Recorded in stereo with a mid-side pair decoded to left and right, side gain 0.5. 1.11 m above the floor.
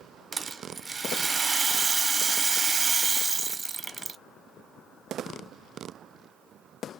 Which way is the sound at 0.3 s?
30° right.